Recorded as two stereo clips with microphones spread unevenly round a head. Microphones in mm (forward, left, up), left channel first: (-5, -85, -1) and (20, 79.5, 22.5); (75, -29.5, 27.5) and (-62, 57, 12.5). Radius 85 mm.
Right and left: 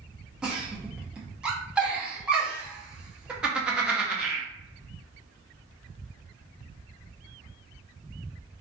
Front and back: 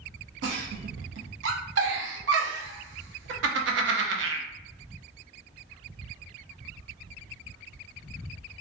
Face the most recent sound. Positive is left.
turn(degrees=160)